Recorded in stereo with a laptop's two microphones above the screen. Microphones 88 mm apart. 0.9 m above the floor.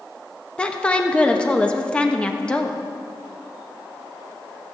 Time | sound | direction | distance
0.6 | a woman speaking | 10° left (ahead or behind) | 1.2 m